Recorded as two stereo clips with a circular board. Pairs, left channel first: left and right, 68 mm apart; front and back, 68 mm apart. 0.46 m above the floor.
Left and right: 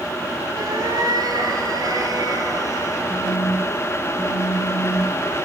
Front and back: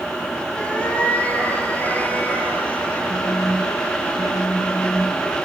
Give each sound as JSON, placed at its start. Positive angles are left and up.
{"t": 0.6, "sound": "a cat meowing", "azimuth_deg": -75, "distance_m": 5.5}
{"t": 3.1, "sound": "a phone buzzing", "azimuth_deg": -160, "distance_m": 6.5}